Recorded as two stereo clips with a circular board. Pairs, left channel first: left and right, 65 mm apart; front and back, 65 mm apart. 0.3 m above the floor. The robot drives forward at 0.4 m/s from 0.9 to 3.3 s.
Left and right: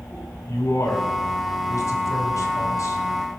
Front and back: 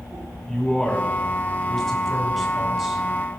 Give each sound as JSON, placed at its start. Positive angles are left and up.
{"t": 0.5, "sound": "a man speaking", "azimuth_deg": 80, "distance_m": 2.5}